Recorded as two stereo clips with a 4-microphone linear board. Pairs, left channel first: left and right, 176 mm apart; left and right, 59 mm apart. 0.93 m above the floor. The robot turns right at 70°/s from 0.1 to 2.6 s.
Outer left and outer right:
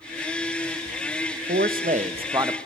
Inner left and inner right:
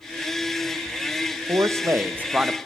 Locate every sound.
1.5 s a man speaking: 85° right, 0.8 m; by 2.6 s 10° right, 0.8 m